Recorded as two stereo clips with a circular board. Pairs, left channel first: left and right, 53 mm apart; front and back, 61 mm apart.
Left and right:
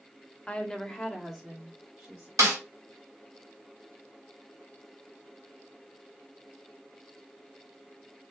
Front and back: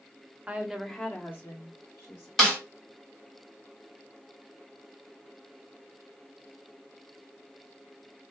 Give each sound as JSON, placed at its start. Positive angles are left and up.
{"t": 0.5, "sound": "a woman speaking", "azimuth_deg": 140, "distance_m": 0.8}
{"t": 2.4, "sound": "a snare drum", "azimuth_deg": -85, "distance_m": 1.5}